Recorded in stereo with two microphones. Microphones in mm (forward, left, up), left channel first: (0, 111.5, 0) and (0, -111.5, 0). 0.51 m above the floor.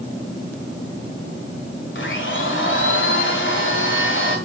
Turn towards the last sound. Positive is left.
turn(degrees=60)  # may be behind; listen again after turning